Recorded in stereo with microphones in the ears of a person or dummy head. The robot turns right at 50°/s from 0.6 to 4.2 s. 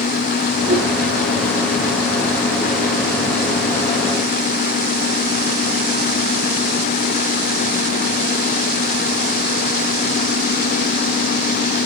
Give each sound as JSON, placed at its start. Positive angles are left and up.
{"t": 0.7, "sound": "a whoosh", "side_deg": -50, "distance_m": 2.5}